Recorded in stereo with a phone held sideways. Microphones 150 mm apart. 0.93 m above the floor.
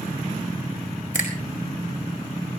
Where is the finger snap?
60° left (ahead or behind), 4 m.